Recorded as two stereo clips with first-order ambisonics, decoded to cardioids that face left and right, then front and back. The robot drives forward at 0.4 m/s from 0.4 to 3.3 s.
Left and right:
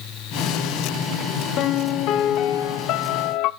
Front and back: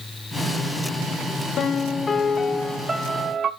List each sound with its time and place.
1.6 s a piano: 50° left, 0.8 m; by 3.5 s 115° left, 0.7 m